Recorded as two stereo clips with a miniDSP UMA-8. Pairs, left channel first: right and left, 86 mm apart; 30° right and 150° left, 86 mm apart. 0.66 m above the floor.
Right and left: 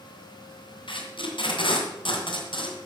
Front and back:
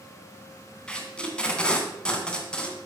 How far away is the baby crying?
I don't hear a baby crying.